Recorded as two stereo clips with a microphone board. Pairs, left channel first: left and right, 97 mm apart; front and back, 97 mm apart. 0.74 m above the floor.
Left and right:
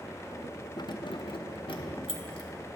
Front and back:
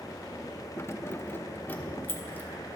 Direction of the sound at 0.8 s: 55° left.